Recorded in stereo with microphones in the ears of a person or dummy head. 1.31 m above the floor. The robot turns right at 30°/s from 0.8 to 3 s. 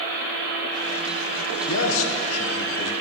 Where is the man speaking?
75° left, 1.0 m; by 2.9 s 110° left, 1.0 m.